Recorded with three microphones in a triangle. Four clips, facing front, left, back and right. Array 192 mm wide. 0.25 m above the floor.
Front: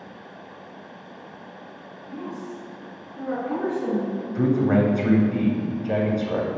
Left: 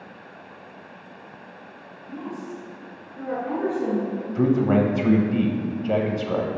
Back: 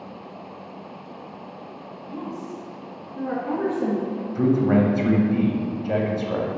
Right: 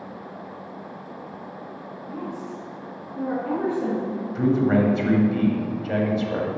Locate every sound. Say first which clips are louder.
2.1 s a woman speaking: even, back 1 dB; 120° right, 1.9 m; by 4.2 s 155° right, 2.5 m
4.3 s a man speaking: even, back 1 dB; 105° left, 0.9 m